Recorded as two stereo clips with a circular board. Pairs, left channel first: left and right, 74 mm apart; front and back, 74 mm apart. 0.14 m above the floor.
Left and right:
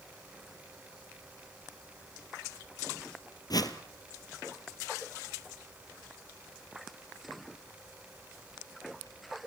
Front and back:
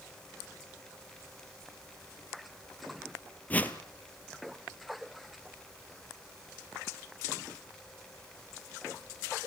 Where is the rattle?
I don't hear a rattle.